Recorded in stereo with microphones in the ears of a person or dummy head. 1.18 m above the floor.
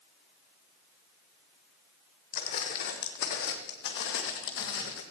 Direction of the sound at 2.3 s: 45° left (ahead or behind).